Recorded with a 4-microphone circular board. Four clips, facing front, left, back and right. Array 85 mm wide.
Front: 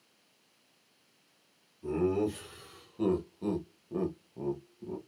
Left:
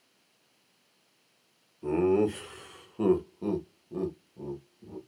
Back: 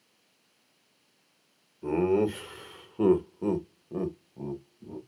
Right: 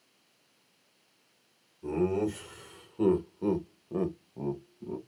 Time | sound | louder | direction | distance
1.8 | laughter | left 4 dB, back 5 dB | 140° left | 1.7 m